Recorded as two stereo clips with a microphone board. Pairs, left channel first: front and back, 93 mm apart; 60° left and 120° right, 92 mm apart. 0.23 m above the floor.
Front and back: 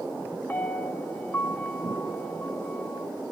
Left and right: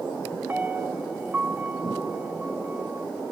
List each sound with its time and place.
0.5 s a piano: 60° right, 0.6 m